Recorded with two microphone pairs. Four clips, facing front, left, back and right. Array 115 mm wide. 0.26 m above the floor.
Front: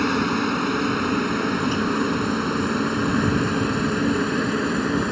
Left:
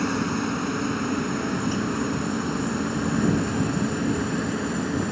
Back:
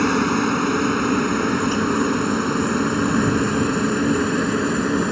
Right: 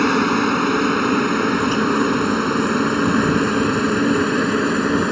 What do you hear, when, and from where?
0.0 s a helicopter: 110° right; by 5.1 s 105° right